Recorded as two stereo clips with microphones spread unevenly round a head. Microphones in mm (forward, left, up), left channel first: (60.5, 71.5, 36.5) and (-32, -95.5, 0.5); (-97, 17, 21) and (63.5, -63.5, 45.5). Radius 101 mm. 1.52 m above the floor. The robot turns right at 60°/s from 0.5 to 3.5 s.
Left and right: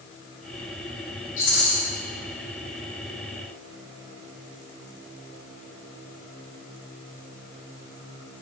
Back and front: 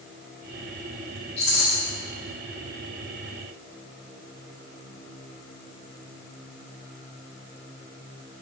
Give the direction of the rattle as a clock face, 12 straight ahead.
9 o'clock.